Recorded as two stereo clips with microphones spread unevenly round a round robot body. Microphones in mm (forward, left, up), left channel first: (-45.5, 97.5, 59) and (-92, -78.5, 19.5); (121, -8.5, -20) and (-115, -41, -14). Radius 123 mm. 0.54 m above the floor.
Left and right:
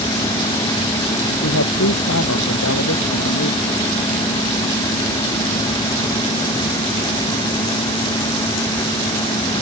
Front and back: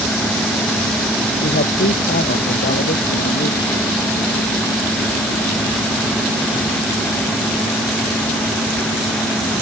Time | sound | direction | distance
1.4 | a man speaking | 65° left | ?